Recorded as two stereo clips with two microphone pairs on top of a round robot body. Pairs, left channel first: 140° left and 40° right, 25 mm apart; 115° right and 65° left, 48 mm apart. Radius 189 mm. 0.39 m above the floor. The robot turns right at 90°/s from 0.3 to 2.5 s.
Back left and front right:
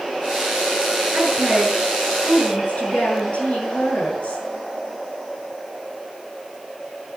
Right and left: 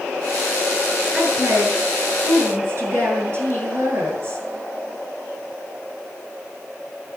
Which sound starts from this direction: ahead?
A woman speaking, at 1.1 s.